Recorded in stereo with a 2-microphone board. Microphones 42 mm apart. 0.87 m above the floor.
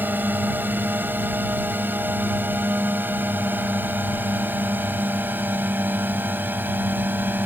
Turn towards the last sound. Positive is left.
turn(degrees=-50)  # may be behind; listen again after turning